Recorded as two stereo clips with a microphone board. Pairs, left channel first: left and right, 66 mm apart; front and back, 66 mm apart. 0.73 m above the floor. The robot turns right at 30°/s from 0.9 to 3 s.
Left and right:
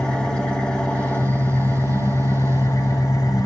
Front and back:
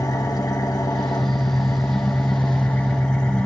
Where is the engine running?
15° left, 2.0 m; by 3.5 s 80° left, 2.0 m.